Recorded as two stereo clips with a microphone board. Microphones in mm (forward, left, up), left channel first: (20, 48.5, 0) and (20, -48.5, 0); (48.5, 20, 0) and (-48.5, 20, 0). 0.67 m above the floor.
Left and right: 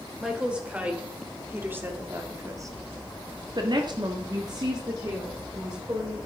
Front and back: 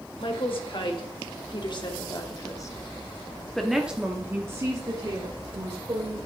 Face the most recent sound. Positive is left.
turn(degrees=-145)